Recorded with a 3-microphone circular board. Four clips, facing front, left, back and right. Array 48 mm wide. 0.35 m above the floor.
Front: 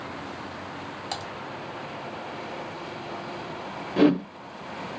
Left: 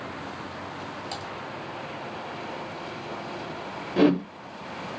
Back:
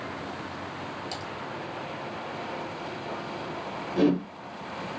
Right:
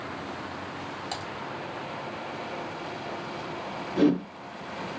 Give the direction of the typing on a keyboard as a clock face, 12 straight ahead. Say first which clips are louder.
Right 2 dB, front 2 dB; 1 o'clock.